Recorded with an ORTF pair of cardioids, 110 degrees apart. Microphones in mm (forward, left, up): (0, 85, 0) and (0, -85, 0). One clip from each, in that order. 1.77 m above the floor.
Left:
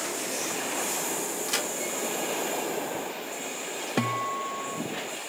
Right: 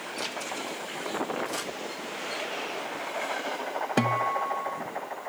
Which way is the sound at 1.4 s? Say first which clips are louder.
Left 4 dB; 65° left.